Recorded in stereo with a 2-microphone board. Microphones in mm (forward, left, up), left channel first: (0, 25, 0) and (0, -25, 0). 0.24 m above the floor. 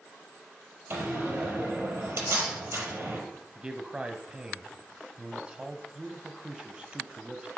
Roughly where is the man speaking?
Right.